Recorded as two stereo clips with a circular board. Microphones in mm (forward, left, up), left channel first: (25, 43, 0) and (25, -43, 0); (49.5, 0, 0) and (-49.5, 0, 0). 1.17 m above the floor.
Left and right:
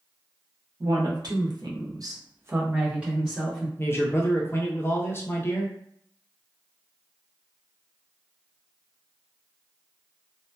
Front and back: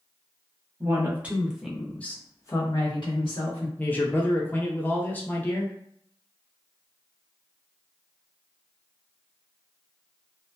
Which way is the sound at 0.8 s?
115° right.